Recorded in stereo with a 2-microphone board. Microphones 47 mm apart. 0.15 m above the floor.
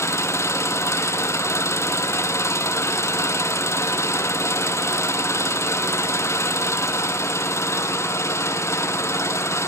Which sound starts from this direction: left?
An engine running, at 0.0 s.